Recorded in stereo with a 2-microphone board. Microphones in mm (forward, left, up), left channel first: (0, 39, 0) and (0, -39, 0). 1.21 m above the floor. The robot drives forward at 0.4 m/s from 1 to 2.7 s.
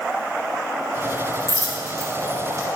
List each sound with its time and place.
1.5 s a dropped coin: 55° right (ahead or behind), 2.5 m; by 2.7 s 45° right (ahead or behind), 3 m